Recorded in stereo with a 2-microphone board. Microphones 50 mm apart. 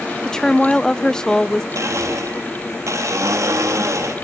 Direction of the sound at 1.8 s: 75° right (ahead or behind).